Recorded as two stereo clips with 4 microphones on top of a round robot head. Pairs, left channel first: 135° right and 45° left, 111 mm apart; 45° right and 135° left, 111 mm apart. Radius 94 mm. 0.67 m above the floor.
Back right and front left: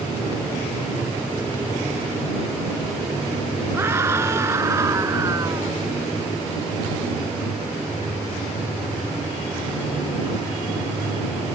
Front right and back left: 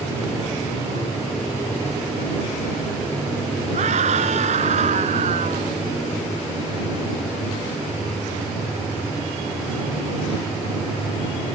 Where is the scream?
115° left; by 5.8 s 110° left.